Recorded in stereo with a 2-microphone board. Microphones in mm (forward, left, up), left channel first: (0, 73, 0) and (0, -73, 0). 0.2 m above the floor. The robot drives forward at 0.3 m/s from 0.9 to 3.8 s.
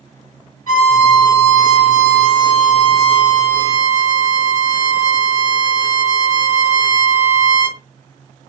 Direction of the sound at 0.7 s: 55° left (ahead or behind).